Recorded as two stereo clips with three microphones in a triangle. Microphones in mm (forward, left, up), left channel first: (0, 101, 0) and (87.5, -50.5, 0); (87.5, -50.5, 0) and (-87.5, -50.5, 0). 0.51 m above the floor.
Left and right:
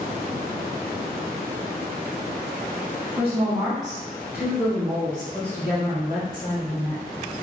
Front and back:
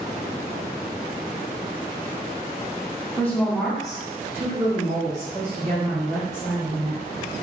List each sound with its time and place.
3.2 s a woman speaking: 70° right, 1.3 m; by 7.0 s 155° left, 1.7 m